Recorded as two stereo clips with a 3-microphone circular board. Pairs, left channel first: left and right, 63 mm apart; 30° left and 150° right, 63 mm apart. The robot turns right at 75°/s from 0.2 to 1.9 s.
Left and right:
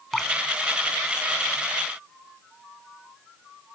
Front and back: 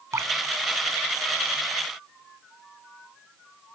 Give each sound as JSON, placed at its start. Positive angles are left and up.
{"t": 0.1, "sound": "dripping", "azimuth_deg": 175}